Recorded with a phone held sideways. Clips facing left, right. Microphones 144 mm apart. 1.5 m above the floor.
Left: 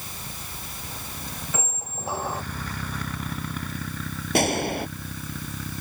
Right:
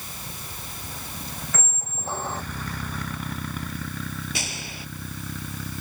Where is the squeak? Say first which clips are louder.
Left 2 dB; 10° left (ahead or behind).